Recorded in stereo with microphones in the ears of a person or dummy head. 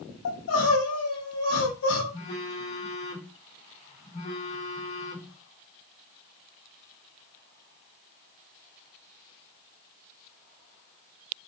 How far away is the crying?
About 5.5 m.